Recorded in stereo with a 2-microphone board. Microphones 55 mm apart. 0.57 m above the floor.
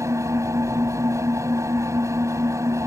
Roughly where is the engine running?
Right.